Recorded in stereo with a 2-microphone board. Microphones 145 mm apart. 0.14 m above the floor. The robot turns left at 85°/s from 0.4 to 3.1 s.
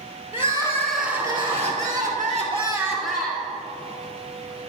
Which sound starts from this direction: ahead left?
Crying, at 0.3 s.